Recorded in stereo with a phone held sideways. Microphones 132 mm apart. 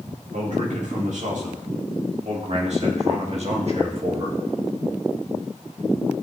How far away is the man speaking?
About 4 m.